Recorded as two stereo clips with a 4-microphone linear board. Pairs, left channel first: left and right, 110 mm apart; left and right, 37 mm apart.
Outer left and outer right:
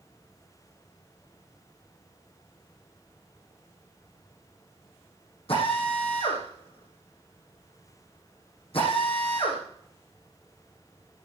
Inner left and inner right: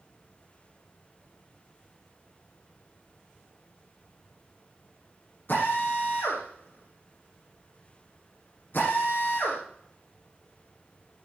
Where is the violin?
No violin in this recording.